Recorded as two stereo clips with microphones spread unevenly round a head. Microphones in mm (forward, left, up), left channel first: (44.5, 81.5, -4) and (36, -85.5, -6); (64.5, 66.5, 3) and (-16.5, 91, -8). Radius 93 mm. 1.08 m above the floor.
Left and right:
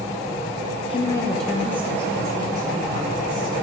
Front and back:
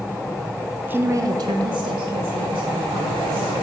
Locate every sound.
0.9 s a woman speaking: 125° left, 0.6 m; by 3.5 s 160° right, 2.5 m